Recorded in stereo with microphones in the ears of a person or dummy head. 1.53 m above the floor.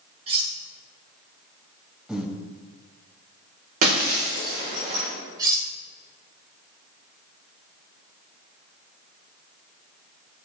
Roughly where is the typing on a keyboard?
No typing on a keyboard in this recording.